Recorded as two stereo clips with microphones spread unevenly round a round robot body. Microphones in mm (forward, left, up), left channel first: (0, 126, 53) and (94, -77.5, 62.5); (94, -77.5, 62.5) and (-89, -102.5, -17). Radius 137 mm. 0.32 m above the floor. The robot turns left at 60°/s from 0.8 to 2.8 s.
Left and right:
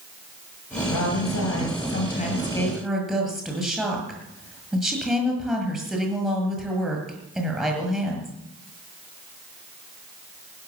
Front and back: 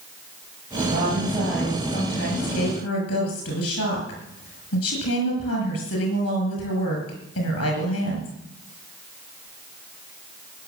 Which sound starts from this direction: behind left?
A woman speaking, at 0.9 s.